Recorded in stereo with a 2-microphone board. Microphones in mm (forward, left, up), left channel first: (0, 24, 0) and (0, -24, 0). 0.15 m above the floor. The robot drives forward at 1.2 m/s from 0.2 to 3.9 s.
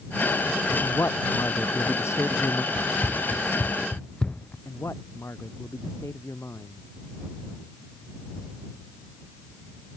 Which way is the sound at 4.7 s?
80° left.